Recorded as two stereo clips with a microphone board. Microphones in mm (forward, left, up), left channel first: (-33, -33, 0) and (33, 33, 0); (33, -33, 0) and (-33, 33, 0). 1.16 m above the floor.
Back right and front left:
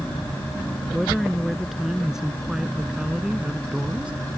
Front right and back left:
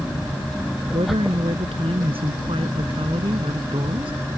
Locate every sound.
0.9 s a woman speaking: 130° left; by 4.1 s 120° left